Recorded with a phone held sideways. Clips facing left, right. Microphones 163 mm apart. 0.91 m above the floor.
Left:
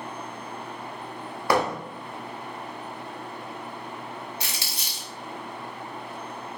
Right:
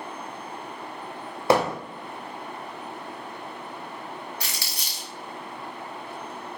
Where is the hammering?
25° right (ahead or behind), 0.7 m.